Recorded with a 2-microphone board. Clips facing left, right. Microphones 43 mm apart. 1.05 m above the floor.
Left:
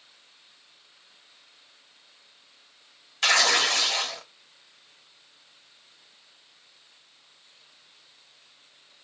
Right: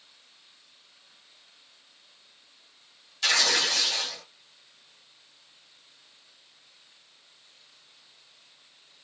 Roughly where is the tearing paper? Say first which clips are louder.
Left 4 dB; left.